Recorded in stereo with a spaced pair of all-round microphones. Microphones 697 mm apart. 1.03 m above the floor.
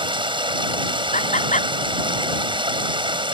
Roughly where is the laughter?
Centre.